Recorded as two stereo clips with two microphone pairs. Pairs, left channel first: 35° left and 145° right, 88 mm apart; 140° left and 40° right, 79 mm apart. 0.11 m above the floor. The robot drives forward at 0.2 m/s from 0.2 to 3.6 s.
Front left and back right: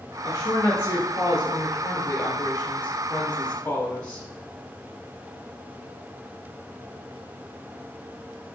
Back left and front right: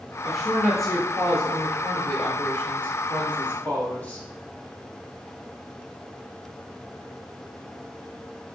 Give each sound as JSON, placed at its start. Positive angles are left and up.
{"t": 0.2, "sound": "a woman speaking", "azimuth_deg": 55, "distance_m": 1.4}